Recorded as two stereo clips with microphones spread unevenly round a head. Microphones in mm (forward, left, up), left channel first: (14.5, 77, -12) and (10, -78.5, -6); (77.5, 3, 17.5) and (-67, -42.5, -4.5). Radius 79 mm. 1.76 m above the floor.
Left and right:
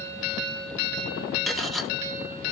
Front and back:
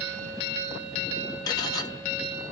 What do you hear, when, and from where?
1.5 s cutlery clinking: 5° right, 0.9 m